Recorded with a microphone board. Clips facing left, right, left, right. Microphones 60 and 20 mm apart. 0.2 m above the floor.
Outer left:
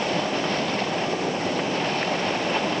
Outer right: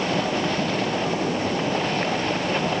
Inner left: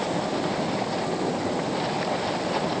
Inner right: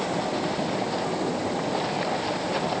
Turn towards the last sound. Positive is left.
No sound to turn to.